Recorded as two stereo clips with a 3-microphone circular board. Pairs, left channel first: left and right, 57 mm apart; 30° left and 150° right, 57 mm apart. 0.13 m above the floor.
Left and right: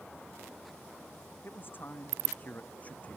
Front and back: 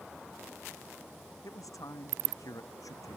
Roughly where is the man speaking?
Ahead left.